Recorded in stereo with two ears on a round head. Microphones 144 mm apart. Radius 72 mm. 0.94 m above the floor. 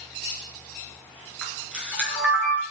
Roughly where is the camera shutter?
Centre.